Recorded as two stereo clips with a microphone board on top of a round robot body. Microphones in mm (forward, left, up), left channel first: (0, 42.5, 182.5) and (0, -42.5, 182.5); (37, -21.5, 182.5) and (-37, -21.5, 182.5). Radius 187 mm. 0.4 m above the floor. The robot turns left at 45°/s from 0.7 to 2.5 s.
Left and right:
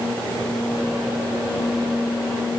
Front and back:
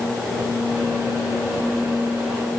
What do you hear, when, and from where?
Only background noise.